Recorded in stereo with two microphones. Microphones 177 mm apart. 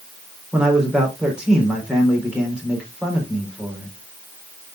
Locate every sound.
0.5 s a man speaking: 5° right (ahead or behind), 4 m